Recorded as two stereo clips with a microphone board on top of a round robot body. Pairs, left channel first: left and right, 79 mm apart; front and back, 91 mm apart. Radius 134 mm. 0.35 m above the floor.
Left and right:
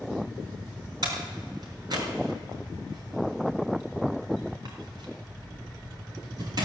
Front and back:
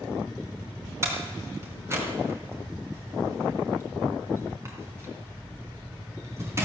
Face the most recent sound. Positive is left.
turn(degrees=-120)